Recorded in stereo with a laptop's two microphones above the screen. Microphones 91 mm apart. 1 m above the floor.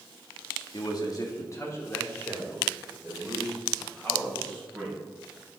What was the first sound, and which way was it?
A man speaking, 50° left (ahead or behind).